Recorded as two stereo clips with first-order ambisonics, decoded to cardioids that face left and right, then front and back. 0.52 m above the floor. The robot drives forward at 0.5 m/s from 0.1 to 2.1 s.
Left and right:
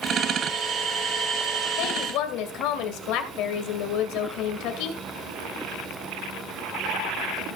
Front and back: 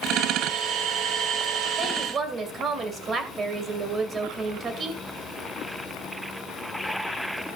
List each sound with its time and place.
1.8 s a woman speaking: 110° left, 2 m; by 5.0 s 115° left, 2 m